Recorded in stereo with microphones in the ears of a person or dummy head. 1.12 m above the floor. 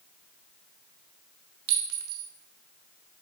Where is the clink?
80° right, 1.1 m.